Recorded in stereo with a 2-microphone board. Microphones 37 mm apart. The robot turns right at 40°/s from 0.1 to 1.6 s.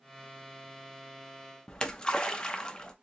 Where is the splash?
20° left (ahead or behind), 0.6 m.